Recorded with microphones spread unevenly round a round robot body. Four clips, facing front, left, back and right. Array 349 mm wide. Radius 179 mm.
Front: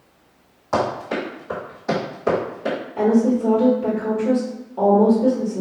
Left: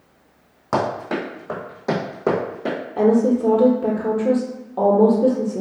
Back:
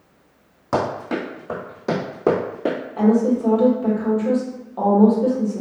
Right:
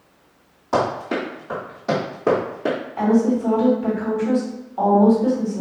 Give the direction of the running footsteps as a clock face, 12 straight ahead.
7 o'clock.